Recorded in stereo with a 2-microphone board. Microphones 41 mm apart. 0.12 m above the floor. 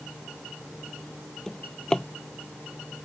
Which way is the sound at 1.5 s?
20° left (ahead or behind).